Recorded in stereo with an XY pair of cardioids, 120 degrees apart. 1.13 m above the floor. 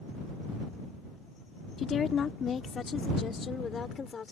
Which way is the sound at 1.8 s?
40° left.